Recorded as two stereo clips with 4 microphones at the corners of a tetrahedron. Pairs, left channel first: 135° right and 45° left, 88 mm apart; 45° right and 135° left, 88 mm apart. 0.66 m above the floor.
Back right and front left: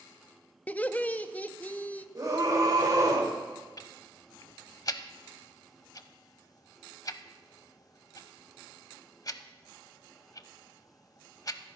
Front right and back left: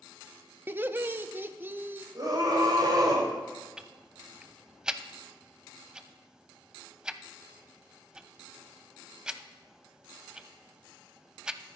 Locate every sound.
0.7 s laughter: 170° left, 0.6 m
2.1 s a scream: 95° left, 3 m
3.8 s ticking: 145° right, 0.6 m